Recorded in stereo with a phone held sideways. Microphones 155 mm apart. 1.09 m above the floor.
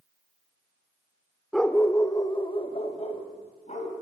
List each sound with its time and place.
1.5 s a dog barking: centre (ahead or behind), 1.4 m; by 3.9 s 50° left (ahead or behind), 4 m